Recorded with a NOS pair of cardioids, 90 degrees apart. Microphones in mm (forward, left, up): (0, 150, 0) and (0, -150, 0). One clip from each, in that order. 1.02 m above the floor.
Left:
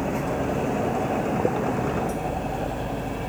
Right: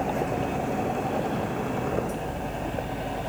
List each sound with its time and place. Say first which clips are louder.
0.0 s a machine running: left 1 dB; 30° left